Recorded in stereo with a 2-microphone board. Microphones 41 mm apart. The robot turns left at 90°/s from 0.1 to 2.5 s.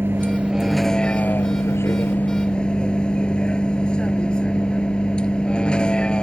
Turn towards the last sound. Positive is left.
turn(degrees=25)